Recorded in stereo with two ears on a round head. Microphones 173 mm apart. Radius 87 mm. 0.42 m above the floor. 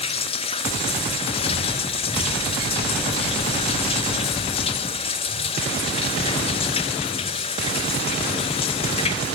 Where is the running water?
30° left (ahead or behind), 1.0 m.